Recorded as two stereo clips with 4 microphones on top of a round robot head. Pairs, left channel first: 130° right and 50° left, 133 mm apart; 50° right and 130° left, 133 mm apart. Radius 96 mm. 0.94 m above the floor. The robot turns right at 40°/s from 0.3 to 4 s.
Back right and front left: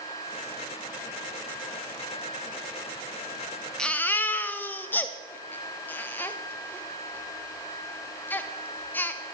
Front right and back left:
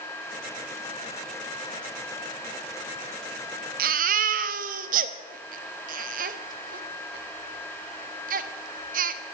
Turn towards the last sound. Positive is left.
turn(degrees=155)